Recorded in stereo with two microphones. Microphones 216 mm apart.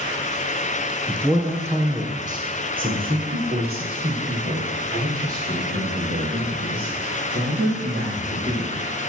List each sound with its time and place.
1.1 s a man speaking: 5° right (ahead or behind), 2.5 m; by 8.8 s 55° right (ahead or behind), 5.5 m